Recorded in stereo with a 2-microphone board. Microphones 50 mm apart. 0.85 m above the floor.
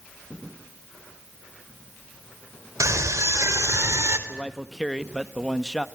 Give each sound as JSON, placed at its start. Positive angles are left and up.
{"t": 2.8, "sound": "a scream", "side_deg": -80, "distance_m": 4.5}
{"t": 4.3, "sound": "a man speaking", "side_deg": 5, "distance_m": 1.2}